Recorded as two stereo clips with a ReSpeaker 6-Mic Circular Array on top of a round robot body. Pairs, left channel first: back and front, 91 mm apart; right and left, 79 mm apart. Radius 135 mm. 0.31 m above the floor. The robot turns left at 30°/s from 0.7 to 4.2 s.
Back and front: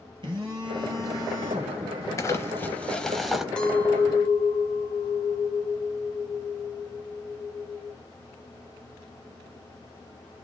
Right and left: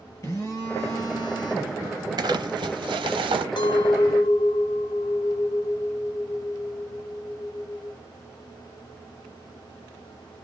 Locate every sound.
0.2 s a phone buzzing: 35° right, 1.9 m; by 1.8 s 65° right, 1.9 m
2.2 s crumpling: 125° left, 0.8 m; by 3.5 s 85° left, 0.8 m
3.6 s a clink: 100° right, 1.2 m; by 8.0 s 120° right, 1.2 m